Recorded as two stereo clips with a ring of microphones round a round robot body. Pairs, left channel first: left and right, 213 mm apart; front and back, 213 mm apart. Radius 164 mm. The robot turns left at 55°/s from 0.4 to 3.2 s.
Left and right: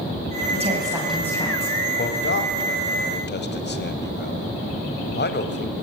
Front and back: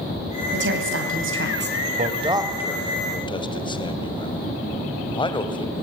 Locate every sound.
0.5 s a woman speaking: 145° right, 3 m; by 1.8 s 145° left, 3 m
2.0 s a man speaking: 130° left, 2 m; by 5.7 s 65° left, 2 m